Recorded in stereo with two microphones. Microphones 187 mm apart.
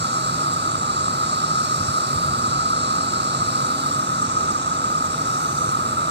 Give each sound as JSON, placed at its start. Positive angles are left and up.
{"t": 0.0, "sound": "an insect", "side_deg": -70}